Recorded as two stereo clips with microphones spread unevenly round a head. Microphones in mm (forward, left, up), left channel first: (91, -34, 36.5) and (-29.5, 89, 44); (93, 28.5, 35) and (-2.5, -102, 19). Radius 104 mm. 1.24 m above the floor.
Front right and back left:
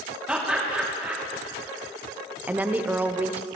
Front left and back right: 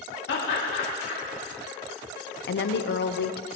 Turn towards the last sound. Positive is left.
turn(degrees=55)